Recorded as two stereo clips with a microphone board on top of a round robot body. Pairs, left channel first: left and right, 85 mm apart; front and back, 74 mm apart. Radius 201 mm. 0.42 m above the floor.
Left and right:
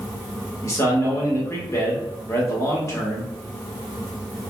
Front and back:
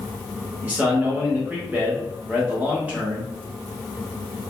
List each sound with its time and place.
0.6 s a man speaking: 120° left, 1.6 m